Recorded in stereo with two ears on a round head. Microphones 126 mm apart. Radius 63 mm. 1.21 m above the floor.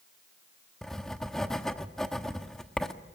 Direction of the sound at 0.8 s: 5° left (ahead or behind).